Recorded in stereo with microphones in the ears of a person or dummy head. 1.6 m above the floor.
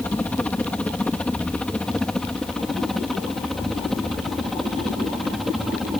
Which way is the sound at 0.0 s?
10° left (ahead or behind).